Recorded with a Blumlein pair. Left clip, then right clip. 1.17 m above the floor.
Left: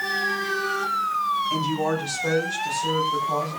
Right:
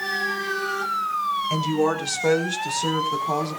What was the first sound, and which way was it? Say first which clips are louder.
A woman speaking: right 2 dB; 70° right.